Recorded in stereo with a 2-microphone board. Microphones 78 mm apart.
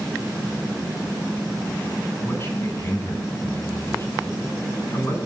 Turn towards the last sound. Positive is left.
turn(degrees=35)  # may be behind; listen again after turning